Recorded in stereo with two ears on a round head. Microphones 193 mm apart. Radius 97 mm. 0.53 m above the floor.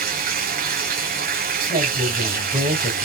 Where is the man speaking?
25° right (ahead or behind), 2.5 m.